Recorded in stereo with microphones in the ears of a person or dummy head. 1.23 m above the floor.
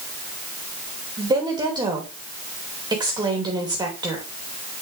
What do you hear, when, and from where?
1.2 s a woman speaking: 25° right (ahead or behind), 2.5 m